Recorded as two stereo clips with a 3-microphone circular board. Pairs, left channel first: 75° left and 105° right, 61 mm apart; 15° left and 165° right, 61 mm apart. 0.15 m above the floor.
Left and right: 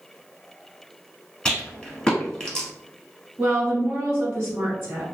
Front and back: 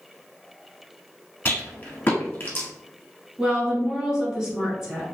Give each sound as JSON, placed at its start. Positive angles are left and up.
{"t": 1.4, "sound": "a rattle", "azimuth_deg": 5, "distance_m": 1.1}
{"t": 3.4, "sound": "a woman speaking", "azimuth_deg": -95, "distance_m": 1.1}